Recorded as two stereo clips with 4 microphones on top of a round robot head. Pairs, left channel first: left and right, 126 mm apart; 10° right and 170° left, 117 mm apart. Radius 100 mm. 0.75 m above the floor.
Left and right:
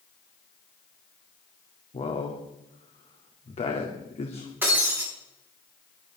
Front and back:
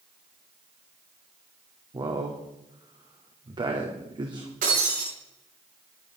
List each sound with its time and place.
1.9 s a man speaking: 125° left, 2 m
4.6 s breaking glass: 165° right, 9 m